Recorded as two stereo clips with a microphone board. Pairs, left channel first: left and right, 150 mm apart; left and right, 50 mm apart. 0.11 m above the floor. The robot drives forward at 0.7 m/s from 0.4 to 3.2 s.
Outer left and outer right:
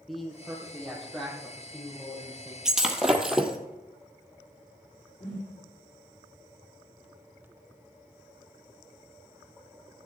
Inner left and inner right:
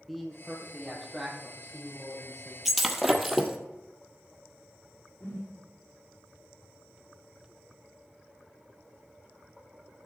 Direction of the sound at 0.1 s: Centre (ahead or behind).